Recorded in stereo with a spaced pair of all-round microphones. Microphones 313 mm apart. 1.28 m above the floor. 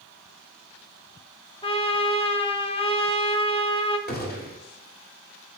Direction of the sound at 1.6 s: 20° left (ahead or behind).